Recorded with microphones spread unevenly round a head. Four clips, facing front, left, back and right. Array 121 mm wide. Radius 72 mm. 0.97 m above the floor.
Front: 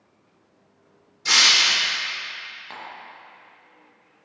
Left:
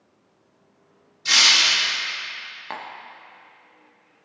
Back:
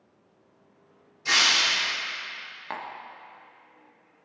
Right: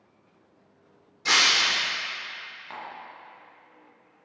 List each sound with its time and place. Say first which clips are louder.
1.2 s breaking glass: left 1 dB, front 3 dB; 80° right, 1.6 m
2.7 s tapping: left 5 dB, back 4 dB; 115° left, 0.9 m